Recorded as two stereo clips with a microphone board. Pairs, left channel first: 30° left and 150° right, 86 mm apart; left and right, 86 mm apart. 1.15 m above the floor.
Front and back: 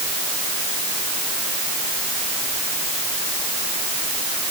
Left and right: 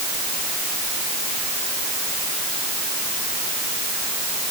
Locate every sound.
Only background noise.